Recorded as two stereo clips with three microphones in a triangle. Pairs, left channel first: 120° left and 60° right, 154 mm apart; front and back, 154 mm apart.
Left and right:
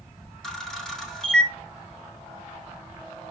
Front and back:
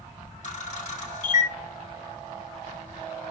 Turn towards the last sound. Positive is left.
turn(degrees=35)